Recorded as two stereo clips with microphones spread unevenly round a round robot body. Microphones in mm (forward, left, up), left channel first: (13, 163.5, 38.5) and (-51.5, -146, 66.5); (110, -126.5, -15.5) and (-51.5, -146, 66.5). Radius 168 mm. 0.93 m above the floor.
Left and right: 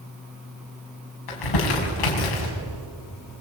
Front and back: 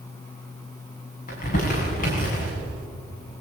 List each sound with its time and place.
1.3 s crumpling: 60° left, 6 m